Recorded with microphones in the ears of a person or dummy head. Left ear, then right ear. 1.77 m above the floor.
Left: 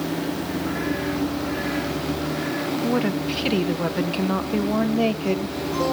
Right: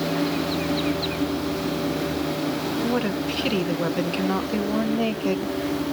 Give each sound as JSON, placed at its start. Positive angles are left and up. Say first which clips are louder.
{"t": 2.8, "sound": "a woman speaking", "louder": "left 2 dB", "side_deg": 5, "distance_m": 1.4}